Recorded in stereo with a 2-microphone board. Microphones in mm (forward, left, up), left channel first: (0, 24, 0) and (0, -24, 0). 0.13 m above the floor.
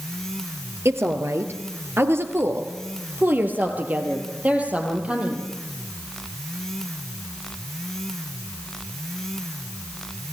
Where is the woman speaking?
60° right (ahead or behind), 2.5 m; by 5.5 s 20° right (ahead or behind), 4.5 m.